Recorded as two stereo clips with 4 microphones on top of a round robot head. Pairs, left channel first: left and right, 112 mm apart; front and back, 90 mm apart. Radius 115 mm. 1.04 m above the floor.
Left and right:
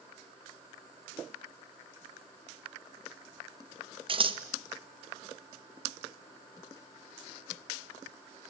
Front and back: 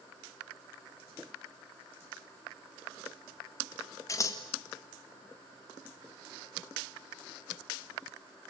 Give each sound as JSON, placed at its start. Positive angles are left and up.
{"t": 4.1, "sound": "scissors", "azimuth_deg": -55, "distance_m": 1.8}